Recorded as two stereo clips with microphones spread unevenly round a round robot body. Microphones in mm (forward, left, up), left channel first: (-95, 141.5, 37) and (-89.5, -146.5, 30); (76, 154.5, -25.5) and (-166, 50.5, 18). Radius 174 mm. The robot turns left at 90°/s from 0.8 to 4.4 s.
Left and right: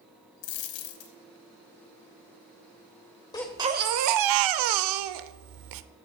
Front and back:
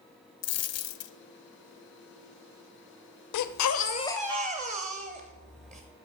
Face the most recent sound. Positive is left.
turn(degrees=-85)